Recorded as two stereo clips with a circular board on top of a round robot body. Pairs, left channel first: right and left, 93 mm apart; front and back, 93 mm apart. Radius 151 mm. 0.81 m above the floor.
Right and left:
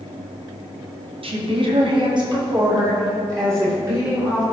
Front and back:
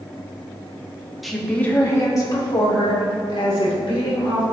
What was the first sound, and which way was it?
A woman speaking, 90° left.